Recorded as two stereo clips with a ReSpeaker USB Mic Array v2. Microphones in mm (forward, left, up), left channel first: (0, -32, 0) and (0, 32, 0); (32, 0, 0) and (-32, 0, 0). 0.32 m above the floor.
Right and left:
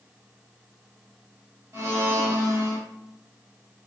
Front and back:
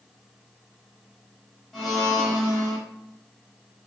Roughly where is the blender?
Left.